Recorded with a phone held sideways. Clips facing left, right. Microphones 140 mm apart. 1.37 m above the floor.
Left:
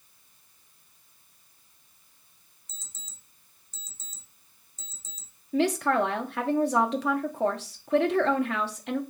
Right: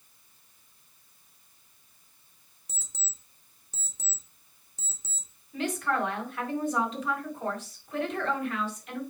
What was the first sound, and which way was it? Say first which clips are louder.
An alarm clock: right 4 dB; 70° right (ahead or behind).